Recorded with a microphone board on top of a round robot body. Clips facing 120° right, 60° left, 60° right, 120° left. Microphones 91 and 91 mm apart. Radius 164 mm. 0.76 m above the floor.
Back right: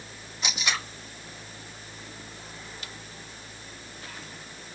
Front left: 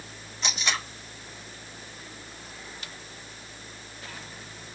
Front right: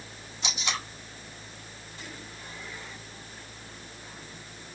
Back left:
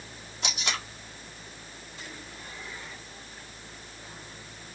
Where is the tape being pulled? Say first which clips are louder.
Even, even; 155° left, 1.9 m.